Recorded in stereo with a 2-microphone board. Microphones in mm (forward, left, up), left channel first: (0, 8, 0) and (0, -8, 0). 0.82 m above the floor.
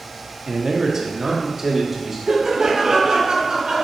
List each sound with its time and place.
0.5 s a man speaking: 45° right (ahead or behind), 0.6 m; by 2.2 s 30° right (ahead or behind), 1.2 m
2.3 s laughter: 40° right (ahead or behind), 1.1 m